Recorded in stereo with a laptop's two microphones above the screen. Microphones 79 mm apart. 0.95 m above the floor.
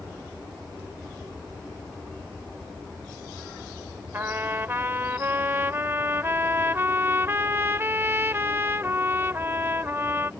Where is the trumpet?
30° right (ahead or behind).